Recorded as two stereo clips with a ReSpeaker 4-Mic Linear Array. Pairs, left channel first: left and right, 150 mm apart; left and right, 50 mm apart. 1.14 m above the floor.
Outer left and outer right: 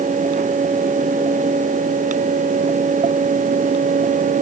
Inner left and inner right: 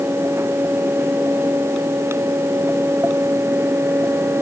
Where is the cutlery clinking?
No cutlery clinking in this recording.